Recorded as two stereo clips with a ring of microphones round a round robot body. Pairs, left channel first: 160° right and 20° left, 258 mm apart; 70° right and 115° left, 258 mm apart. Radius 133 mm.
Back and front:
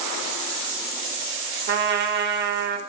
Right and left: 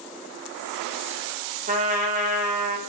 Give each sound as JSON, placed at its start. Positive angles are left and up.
{"t": 1.7, "sound": "a trumpet", "azimuth_deg": 60, "distance_m": 0.5}